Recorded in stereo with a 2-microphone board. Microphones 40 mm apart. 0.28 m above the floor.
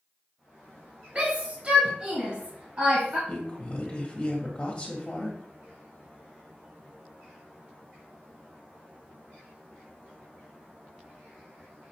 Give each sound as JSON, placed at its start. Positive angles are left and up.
{"t": 1.1, "sound": "a shout", "side_deg": -30, "distance_m": 1.3}
{"t": 3.3, "sound": "a woman speaking", "side_deg": 30, "distance_m": 1.6}